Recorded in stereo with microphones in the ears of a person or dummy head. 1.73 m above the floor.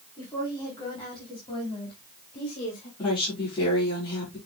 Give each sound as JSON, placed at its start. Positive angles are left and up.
{"t": 0.2, "sound": "a woman speaking", "side_deg": 20, "distance_m": 5.0}
{"t": 3.0, "sound": "a woman speaking", "side_deg": 30, "distance_m": 5.0}